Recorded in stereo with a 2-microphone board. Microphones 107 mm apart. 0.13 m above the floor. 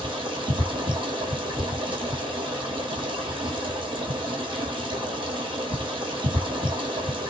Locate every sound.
0.0 s running water: 50° right (ahead or behind), 1.3 m